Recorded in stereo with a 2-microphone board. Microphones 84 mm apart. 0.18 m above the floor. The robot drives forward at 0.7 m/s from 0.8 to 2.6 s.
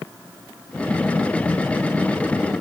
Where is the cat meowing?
No cat meowing in this recording.